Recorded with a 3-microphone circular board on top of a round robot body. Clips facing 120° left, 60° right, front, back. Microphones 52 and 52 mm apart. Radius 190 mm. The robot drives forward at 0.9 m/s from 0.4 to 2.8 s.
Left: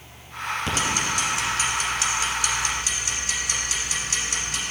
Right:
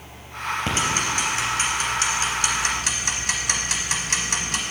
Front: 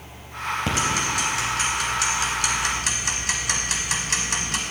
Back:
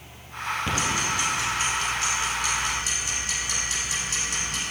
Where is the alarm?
I don't hear an alarm.